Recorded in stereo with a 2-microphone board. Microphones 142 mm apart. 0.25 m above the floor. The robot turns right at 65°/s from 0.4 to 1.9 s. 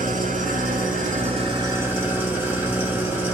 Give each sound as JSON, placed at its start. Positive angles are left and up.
{"t": 0.0, "sound": "an engine running", "azimuth_deg": -110, "distance_m": 0.8}